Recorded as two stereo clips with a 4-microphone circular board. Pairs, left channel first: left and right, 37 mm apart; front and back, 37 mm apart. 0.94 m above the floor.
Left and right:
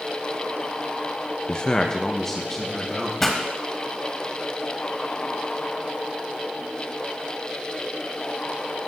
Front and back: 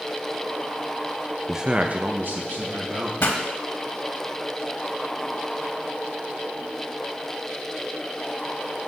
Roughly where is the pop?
Ahead.